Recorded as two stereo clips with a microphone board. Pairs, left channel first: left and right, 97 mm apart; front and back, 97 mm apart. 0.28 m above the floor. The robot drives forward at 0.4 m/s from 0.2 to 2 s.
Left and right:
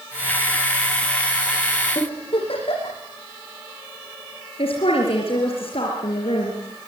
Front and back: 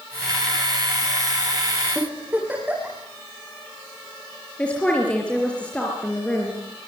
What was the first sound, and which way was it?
A giggle, 105° left.